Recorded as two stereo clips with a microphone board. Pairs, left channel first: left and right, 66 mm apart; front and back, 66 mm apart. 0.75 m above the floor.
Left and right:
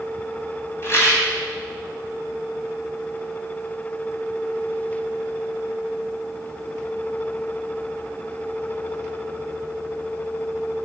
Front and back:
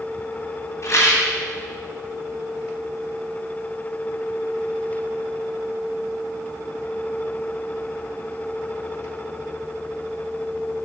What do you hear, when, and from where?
0.8 s a rattle: 40° left, 1.9 m